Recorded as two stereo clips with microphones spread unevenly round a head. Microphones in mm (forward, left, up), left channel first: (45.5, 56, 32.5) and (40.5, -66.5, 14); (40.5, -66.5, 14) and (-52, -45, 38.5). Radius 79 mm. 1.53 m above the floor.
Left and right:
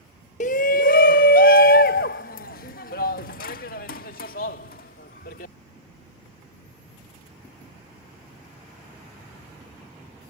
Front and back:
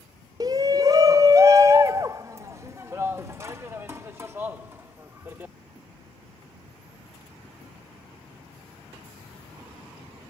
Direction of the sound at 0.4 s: 115° left.